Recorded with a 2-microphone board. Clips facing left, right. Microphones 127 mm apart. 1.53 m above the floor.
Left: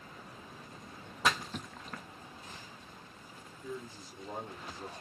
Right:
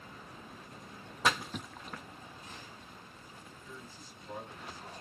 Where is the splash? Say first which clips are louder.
Even; centre (ahead or behind), 0.5 m.